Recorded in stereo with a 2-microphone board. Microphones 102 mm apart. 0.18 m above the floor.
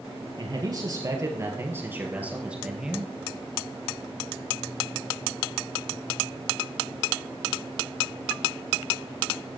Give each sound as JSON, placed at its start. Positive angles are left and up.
{"t": 0.4, "sound": "a man speaking", "side_deg": -45, "distance_m": 3.0}